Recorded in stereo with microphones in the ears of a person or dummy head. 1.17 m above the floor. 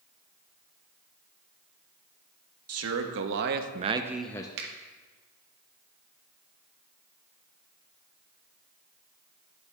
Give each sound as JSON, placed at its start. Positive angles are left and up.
{"t": 2.7, "sound": "a man speaking", "side_deg": -75, "distance_m": 1.2}
{"t": 4.6, "sound": "a finger snap", "side_deg": -65, "distance_m": 1.7}